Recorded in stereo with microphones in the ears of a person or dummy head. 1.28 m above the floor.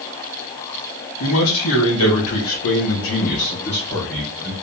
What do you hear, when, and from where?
1.2 s a man speaking: 80° left, 1.6 m; by 4.5 s 5° right (ahead or behind), 0.9 m